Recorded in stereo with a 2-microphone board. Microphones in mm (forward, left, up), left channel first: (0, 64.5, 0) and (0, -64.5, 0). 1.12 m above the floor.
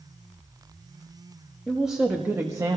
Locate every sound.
1.7 s a woman speaking: centre (ahead or behind), 1.5 m; by 2.8 s 30° right (ahead or behind), 1.0 m